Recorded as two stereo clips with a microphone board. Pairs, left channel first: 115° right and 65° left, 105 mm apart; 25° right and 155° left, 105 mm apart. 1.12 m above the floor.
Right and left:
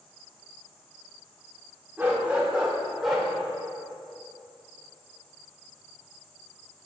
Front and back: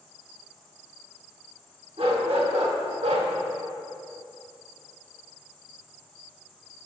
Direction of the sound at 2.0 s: 140° left.